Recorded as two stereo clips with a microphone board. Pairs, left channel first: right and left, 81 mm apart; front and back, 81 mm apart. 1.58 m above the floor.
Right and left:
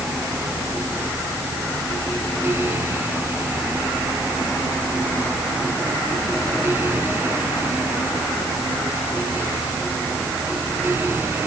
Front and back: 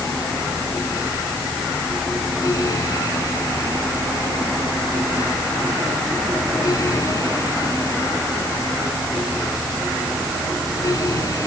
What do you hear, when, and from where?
Only background noise.